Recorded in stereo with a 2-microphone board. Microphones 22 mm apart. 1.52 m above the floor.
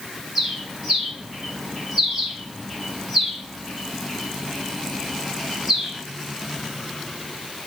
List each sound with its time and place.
0.3 s a bird: 5° right (ahead or behind), 2.0 m